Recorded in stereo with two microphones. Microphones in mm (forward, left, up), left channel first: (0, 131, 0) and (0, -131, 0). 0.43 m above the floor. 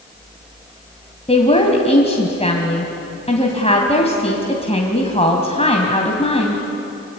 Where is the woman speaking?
20° left (ahead or behind), 2.5 m.